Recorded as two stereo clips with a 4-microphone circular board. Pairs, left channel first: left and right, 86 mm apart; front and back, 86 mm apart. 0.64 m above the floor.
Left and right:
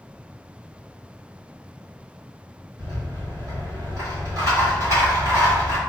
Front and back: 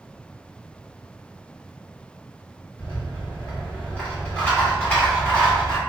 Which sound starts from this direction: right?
A rattle, at 2.8 s.